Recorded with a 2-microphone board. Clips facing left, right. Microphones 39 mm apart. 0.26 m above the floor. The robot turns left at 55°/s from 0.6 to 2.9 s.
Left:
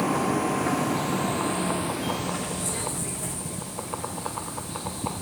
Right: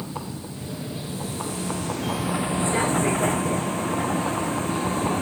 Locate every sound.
0.0 s a vehicle: 85° left; by 5.2 s 40° right